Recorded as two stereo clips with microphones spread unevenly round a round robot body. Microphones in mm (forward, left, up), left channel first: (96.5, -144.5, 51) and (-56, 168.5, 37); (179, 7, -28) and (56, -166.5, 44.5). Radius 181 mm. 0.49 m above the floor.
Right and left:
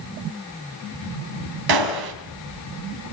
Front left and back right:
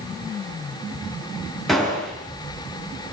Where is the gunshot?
140° left, 4.5 m.